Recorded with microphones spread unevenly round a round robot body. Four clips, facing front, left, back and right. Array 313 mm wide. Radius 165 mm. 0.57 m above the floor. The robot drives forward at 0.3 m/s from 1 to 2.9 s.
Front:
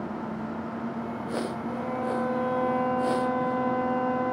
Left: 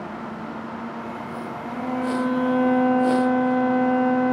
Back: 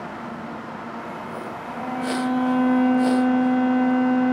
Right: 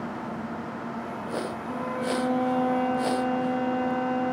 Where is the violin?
40° left, 0.7 m; by 4.3 s 75° left, 0.5 m.